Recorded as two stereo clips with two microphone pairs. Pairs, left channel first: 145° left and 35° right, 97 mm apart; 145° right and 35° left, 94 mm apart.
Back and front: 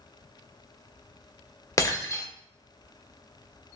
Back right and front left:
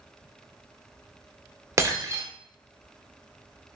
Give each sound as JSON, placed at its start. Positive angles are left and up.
{"t": 1.8, "sound": "breaking glass", "azimuth_deg": 90, "distance_m": 0.7}